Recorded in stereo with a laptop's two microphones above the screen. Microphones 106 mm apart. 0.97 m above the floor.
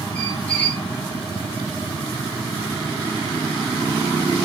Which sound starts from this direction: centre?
A squeak, at 0.1 s.